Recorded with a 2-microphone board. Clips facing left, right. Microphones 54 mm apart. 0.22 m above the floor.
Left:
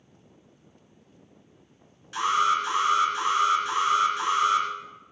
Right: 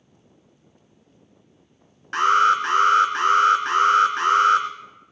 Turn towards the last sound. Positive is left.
turn(degrees=-55)  # may be behind; listen again after turning